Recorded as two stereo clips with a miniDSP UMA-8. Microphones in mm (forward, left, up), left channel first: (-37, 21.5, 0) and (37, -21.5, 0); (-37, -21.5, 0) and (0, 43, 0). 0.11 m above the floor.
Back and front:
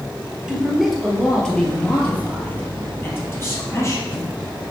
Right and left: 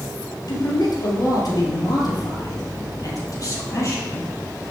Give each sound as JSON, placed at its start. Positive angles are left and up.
{"t": 0.5, "sound": "a man speaking", "azimuth_deg": -115, "distance_m": 2.5}